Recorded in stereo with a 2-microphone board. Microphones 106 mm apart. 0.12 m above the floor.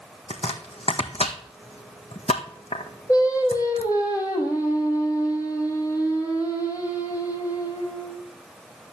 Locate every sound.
0.3 s chopping: 70° left (ahead or behind), 1.5 m
3.1 s singing: 35° left (ahead or behind), 3 m